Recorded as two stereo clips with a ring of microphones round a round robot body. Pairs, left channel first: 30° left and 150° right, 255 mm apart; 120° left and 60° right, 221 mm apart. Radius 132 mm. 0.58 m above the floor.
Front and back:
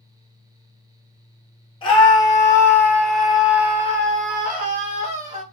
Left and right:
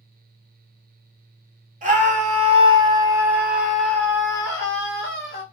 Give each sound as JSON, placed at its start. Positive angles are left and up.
{"t": 1.8, "sound": "a scream", "azimuth_deg": -30, "distance_m": 1.4}